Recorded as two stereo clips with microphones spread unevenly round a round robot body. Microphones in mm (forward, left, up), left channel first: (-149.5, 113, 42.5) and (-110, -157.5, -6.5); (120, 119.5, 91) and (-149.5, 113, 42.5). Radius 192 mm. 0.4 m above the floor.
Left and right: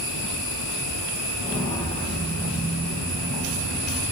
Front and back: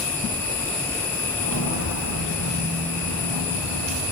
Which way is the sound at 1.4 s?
5° right.